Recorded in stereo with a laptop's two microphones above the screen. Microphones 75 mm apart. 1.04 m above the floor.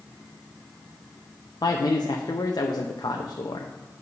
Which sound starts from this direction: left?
A man speaking, at 1.6 s.